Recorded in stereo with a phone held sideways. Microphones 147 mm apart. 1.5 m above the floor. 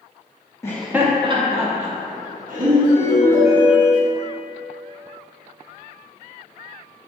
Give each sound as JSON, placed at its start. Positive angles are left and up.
{"t": 0.6, "sound": "laughter", "side_deg": 20, "distance_m": 0.5}
{"t": 2.8, "sound": "a ringtone", "side_deg": -55, "distance_m": 2.0}